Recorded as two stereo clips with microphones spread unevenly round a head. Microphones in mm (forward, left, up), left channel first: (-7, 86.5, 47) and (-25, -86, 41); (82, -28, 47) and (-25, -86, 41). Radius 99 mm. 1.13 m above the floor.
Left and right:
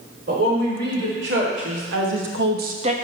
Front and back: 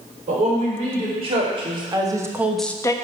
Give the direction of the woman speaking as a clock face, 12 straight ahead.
4 o'clock.